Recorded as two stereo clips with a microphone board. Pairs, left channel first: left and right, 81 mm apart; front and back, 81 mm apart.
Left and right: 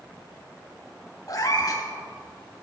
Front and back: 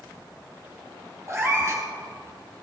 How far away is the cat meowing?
About 2.5 m.